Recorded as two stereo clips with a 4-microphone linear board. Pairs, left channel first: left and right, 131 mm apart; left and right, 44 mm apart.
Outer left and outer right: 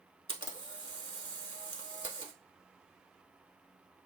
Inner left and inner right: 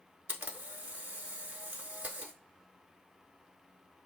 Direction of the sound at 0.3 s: 45° right (ahead or behind).